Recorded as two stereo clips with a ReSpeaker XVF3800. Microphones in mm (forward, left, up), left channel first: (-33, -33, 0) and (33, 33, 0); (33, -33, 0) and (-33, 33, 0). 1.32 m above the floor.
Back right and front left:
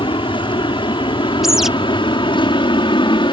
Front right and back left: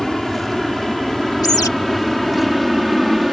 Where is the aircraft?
135° right.